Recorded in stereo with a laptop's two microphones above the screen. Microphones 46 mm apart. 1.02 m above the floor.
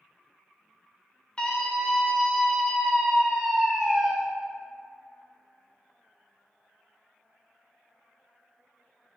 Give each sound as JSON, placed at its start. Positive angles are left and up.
{"t": 1.4, "sound": "a scream", "side_deg": 25, "distance_m": 3.0}